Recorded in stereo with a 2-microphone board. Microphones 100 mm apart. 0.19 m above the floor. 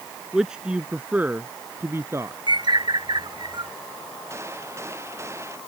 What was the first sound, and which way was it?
A man speaking, 5° right (ahead or behind).